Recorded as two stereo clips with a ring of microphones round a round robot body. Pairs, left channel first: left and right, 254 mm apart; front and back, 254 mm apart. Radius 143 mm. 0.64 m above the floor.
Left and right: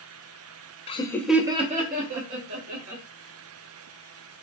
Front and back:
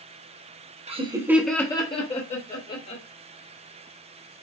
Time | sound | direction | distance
0.9 | laughter | 135° left | 0.8 m